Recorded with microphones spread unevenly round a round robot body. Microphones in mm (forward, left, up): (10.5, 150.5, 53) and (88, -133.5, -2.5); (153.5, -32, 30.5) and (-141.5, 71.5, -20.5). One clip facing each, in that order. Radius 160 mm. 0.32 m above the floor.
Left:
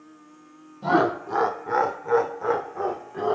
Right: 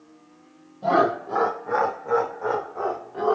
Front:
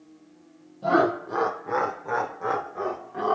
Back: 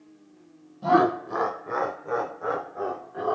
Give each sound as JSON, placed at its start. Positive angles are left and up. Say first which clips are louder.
{"t": 0.8, "sound": "laughter", "louder": "even, back 1 dB", "azimuth_deg": 170, "distance_m": 1.1}